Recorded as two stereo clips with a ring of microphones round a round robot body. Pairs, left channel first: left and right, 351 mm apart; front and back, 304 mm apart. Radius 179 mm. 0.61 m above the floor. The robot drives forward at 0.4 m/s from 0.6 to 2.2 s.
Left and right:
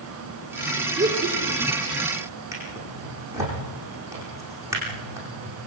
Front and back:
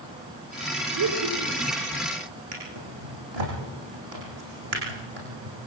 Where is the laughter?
155° right, 3 m; by 1.9 s 160° right, 3 m.